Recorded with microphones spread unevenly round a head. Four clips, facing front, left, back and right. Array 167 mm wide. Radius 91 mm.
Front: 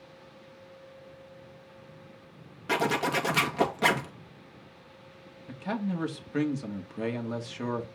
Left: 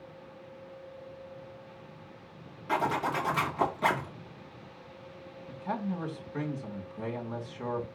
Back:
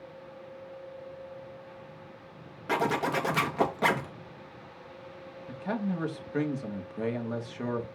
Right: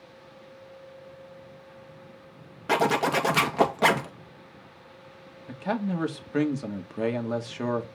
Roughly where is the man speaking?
Right.